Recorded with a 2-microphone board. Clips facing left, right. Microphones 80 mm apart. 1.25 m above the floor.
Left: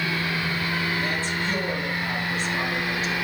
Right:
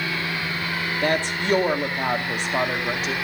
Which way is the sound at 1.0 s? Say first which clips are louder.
Right 4 dB; 70° right (ahead or behind).